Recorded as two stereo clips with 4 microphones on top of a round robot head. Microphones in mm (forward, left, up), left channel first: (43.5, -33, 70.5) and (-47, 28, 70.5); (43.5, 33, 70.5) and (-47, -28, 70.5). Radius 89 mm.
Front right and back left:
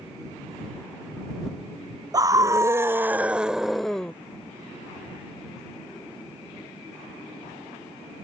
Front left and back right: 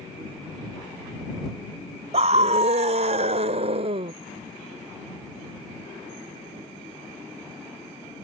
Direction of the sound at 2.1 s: 160° right.